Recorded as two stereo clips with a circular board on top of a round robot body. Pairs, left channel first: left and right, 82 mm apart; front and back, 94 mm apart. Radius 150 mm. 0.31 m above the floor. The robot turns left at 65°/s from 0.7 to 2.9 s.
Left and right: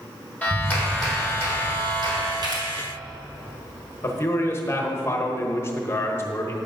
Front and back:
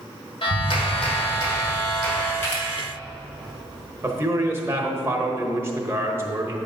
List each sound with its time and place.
0.4 s a clap: 20° left, 2.5 m; by 2.3 s 85° right, 2.5 m
2.4 s a camera shutter: 65° right, 3 m; by 2.6 s 80° right, 3 m
4.0 s a man speaking: 130° left, 1.0 m